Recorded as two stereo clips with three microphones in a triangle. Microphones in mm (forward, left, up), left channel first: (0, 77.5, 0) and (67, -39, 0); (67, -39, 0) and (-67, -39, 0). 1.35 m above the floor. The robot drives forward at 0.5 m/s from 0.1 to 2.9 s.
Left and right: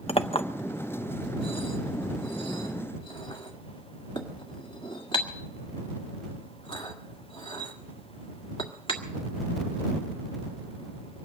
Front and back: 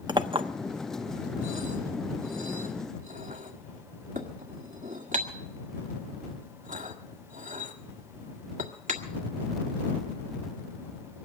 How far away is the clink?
About 0.6 m.